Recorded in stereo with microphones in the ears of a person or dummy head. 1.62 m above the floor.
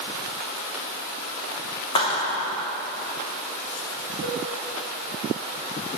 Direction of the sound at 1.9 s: 35° left (ahead or behind).